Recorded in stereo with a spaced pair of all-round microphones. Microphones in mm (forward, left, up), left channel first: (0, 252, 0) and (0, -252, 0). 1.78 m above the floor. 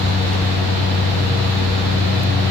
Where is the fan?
50° left (ahead or behind), 0.7 m.